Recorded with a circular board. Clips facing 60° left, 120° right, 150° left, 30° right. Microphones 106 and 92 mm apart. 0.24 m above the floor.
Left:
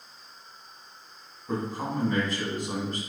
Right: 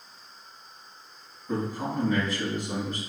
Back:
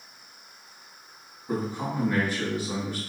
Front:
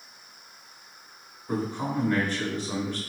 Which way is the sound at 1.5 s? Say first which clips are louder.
Right 1 dB, front 1 dB; 70° left.